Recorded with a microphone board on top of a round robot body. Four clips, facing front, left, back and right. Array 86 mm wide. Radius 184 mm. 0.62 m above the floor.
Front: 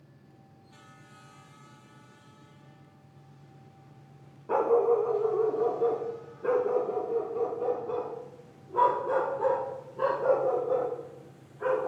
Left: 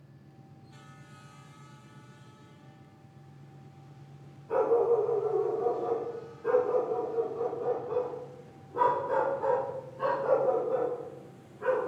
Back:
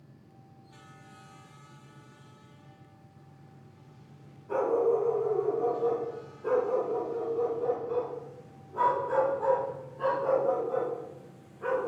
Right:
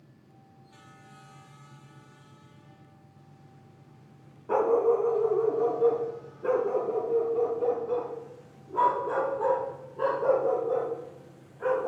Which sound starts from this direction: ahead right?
A dog barking, at 4.5 s.